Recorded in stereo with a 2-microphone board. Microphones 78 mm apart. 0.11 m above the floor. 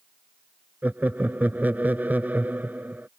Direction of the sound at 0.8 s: 20° right (ahead or behind).